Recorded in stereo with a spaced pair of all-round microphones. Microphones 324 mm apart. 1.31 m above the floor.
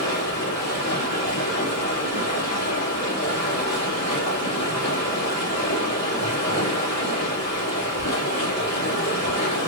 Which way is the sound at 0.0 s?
55° left (ahead or behind).